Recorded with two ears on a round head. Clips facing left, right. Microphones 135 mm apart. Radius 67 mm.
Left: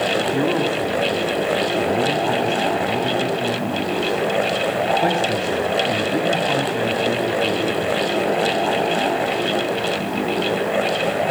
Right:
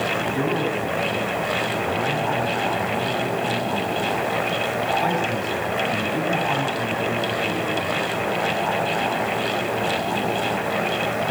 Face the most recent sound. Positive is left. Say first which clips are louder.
# left 4 dB
turn(degrees=70)  # may be behind; listen again after turning